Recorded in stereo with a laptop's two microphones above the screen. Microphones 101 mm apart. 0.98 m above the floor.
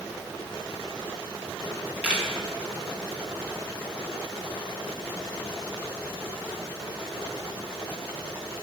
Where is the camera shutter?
10° right (ahead or behind), 1.2 m.